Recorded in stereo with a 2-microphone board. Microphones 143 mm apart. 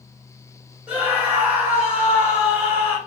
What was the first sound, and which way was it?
A scream, 10° right (ahead or behind).